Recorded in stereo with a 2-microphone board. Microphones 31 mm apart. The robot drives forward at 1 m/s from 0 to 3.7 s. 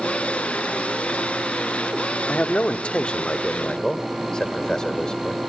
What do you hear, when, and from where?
2.3 s a man speaking: 50° left (ahead or behind), 1.1 m; by 5.4 s 25° left (ahead or behind), 2.0 m